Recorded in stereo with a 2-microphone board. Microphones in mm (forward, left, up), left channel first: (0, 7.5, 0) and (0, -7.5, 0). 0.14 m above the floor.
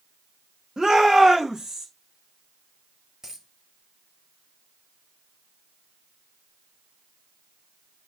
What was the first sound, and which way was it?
A shout, 70° right (ahead or behind).